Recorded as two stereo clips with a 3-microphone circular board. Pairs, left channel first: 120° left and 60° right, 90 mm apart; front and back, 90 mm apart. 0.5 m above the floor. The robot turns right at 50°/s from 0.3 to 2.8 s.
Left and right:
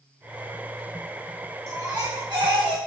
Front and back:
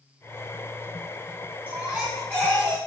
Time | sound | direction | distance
1.7 | a baby crying | 115° right | 1.1 m